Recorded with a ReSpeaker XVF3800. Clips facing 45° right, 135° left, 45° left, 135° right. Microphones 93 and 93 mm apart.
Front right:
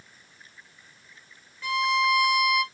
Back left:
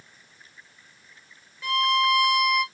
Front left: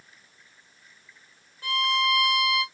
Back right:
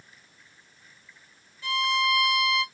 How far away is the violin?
About 2.0 m.